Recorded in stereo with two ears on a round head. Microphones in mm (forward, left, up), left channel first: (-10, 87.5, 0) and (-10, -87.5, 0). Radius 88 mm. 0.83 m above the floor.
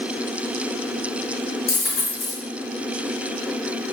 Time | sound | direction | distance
1.7 | a dropped coin | 75° left (ahead or behind) | 1.9 m